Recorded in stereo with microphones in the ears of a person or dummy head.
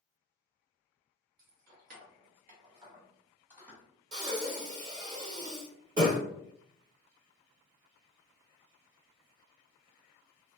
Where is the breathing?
20° right (ahead or behind), 1.0 m.